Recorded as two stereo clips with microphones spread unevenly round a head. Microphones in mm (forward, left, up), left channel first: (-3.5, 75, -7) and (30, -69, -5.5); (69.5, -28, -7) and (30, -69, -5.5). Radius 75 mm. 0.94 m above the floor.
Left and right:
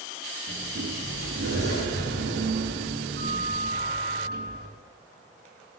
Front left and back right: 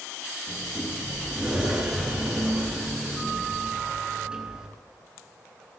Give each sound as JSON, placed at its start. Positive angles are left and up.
{"t": 0.5, "sound": "a sliding door", "azimuth_deg": -60, "distance_m": 9.5}